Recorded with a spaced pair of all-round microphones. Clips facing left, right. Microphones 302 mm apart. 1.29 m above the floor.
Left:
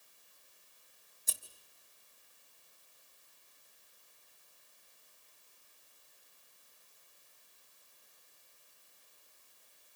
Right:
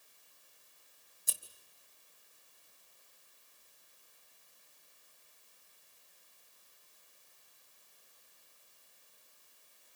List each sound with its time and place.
1.3 s scissors: 15° right (ahead or behind), 2.5 m